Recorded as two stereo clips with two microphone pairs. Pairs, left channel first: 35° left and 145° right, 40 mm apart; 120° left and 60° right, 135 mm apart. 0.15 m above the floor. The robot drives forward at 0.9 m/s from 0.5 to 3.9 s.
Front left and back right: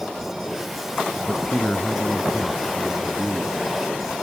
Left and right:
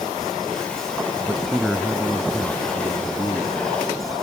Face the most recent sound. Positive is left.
turn(degrees=170)